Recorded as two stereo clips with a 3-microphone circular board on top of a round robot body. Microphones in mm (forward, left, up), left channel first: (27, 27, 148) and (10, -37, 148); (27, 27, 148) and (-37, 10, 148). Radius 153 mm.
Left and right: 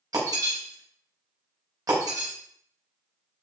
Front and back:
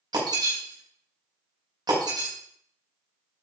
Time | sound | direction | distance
0.1 | breaking glass | 140° right | 5 m